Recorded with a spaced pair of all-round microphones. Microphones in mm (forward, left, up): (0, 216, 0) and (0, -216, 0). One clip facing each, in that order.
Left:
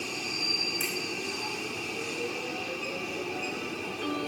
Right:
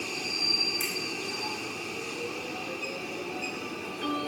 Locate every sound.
0.8 s a finger snap: 10° left (ahead or behind), 6 m